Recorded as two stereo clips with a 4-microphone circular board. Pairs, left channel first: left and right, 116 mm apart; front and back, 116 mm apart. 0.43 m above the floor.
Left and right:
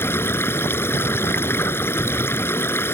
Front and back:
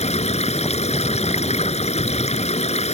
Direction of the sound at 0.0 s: 20° left.